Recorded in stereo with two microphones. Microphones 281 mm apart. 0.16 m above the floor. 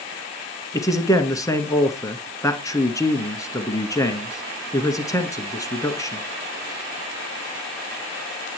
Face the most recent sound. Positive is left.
turn(degrees=10)  # may be behind; listen again after turning